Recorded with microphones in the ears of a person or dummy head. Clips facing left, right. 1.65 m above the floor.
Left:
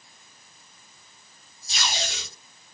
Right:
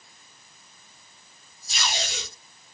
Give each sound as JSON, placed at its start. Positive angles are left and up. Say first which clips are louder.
{"t": 1.7, "sound": "tape being pulled", "louder": "even", "side_deg": 55, "distance_m": 1.6}